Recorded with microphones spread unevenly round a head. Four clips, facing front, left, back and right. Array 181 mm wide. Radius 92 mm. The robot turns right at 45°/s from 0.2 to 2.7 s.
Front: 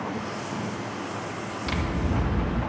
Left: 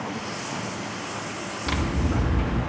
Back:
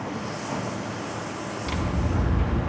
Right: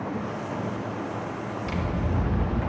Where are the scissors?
70° left, 3 m; by 2.6 s 115° left, 3 m.